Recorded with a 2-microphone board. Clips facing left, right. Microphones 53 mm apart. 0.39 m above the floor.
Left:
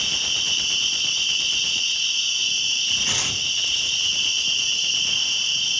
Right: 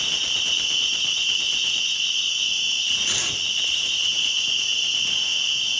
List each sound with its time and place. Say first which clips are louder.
0.0 s an insect: even; 75° left (ahead or behind), 5 m
3.1 s tearing paper: even; 50° left (ahead or behind), 3 m